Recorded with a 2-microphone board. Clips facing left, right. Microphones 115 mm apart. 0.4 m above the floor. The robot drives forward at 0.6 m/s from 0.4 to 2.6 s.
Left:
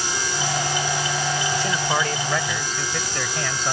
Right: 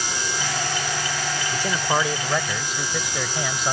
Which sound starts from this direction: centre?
A man speaking, at 1.5 s.